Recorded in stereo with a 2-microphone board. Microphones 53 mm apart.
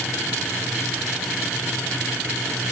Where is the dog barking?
No dog barking in this recording.